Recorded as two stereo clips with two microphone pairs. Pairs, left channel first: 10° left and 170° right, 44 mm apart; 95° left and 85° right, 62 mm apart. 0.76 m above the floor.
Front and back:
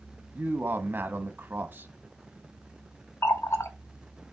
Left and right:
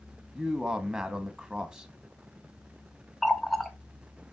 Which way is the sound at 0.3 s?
160° right.